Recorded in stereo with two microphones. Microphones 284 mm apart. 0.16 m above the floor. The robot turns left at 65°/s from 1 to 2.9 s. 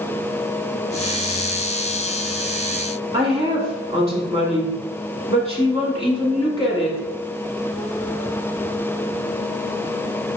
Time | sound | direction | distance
3.1 | a woman speaking | 20° right (ahead or behind) | 1.1 m